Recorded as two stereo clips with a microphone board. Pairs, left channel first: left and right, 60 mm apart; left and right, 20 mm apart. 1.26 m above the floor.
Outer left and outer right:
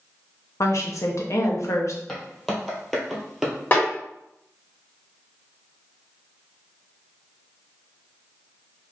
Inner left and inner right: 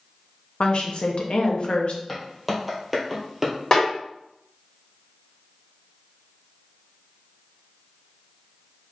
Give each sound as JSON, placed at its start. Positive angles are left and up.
{"t": 0.6, "sound": "a woman speaking", "side_deg": 55, "distance_m": 0.7}
{"t": 2.1, "sound": "footsteps", "side_deg": 10, "distance_m": 1.7}
{"t": 3.7, "sound": "a snare drum", "side_deg": 30, "distance_m": 1.5}